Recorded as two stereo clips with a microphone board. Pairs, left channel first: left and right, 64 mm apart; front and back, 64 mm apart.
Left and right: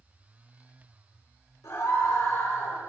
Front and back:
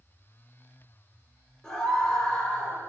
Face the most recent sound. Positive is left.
turn(degrees=65)